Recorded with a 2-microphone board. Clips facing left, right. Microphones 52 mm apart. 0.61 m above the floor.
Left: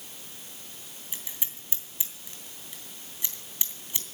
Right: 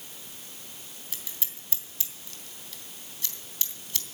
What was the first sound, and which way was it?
Scissors, 20° left (ahead or behind).